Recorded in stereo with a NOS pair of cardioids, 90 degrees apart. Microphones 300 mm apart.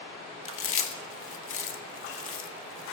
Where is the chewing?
45° left, 1.7 m.